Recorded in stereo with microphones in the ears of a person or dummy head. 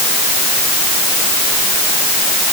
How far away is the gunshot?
I don't hear a gunshot.